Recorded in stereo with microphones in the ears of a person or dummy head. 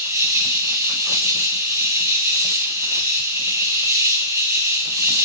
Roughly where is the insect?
Centre.